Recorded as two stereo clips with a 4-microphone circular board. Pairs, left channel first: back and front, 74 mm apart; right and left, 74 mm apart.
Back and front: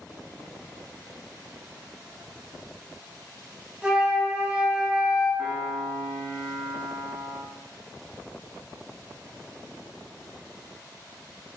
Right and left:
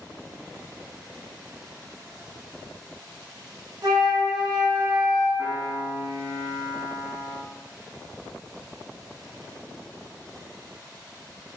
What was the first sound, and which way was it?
A flute, 80° left.